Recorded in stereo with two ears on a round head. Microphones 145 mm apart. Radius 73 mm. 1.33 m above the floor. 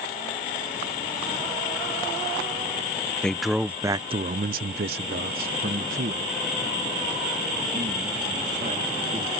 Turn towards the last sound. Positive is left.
turn(degrees=-45)  # may be behind; listen again after turning